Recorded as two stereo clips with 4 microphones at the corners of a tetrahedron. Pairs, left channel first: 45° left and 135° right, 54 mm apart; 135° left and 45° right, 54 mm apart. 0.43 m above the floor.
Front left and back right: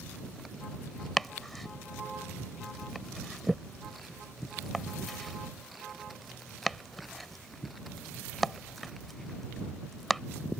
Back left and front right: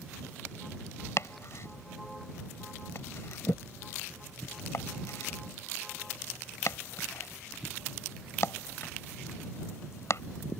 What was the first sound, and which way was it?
Chopping, 130° left.